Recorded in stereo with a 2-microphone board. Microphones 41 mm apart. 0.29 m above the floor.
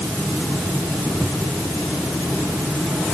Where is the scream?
I don't hear a scream.